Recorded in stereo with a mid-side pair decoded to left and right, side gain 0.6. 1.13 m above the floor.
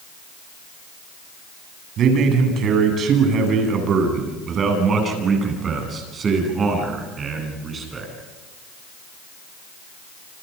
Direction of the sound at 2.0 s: 55° right.